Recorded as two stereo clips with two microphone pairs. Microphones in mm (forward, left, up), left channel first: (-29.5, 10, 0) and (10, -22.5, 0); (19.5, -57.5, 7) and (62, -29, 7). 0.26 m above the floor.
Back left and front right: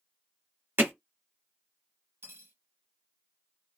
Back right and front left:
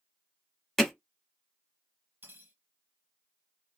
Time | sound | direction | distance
0.8 | hammering | 65° right | 1.1 m
2.2 | cutlery clinking | 10° right | 1.4 m